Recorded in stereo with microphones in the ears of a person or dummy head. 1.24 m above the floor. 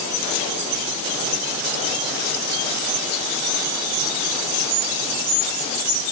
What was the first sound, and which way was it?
Only background noise.